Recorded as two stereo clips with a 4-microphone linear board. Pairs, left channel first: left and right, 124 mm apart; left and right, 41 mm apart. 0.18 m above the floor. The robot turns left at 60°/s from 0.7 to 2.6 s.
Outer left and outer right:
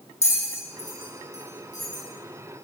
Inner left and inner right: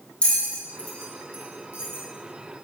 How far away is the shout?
No shout in this recording.